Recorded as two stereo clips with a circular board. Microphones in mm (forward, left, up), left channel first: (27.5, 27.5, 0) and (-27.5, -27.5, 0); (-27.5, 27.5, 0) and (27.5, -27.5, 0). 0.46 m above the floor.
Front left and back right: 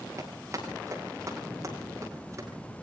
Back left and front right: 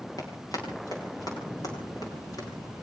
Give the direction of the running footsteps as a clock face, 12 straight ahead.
6 o'clock.